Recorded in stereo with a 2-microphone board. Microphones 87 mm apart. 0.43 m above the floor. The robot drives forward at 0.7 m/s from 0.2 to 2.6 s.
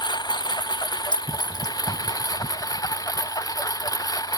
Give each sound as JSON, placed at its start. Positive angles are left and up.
{"t": 0.0, "sound": "a lawn mower", "side_deg": 55}
{"t": 1.1, "sound": "a clink", "side_deg": 60}